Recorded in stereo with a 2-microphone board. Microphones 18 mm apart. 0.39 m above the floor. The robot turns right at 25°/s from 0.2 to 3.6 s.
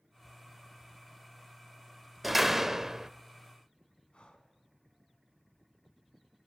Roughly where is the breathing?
Left.